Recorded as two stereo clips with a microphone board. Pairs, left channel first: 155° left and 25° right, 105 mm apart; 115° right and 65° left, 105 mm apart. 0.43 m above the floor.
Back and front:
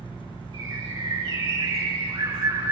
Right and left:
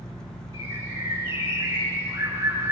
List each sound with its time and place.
0.5 s a bird: 5° left, 8.5 m